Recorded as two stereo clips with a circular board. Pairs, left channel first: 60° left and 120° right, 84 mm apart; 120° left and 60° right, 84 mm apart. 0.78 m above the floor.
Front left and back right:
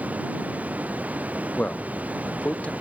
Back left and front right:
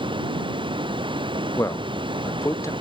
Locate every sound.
0.0 s running water: 45° right
1.6 s a man speaking: 125° left